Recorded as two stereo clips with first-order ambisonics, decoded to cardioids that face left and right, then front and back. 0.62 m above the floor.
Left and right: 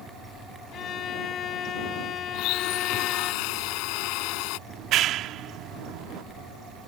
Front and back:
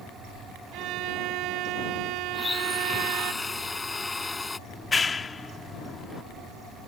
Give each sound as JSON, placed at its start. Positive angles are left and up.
{"t": 0.7, "sound": "a violin", "azimuth_deg": 145}
{"t": 2.3, "sound": "a blender", "azimuth_deg": 80}
{"t": 4.7, "sound": "a clap", "azimuth_deg": -65}